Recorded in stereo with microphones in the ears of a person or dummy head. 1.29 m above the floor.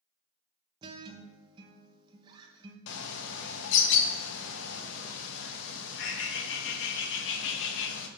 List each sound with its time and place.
0.8 s a guitar: 25° right (ahead or behind), 0.9 m
2.9 s a bird: 65° left (ahead or behind), 1.1 m